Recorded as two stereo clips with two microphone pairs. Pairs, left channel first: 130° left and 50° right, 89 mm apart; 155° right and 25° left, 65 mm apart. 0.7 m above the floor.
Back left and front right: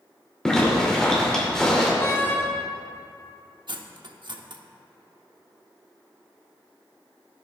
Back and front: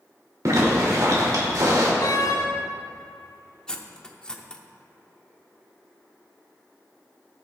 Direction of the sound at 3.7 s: 80° right.